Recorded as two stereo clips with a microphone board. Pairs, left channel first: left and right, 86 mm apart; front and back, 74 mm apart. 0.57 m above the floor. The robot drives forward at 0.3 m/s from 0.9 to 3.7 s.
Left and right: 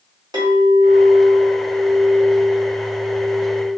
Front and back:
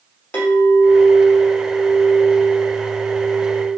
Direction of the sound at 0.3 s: 65° right.